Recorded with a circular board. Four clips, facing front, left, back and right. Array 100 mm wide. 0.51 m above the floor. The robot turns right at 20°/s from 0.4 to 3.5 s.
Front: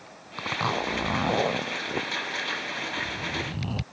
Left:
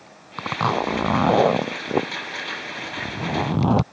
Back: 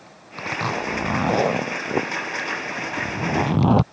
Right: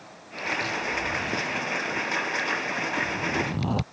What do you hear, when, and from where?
0.4 s a zipper: 90° left; by 3.8 s 150° left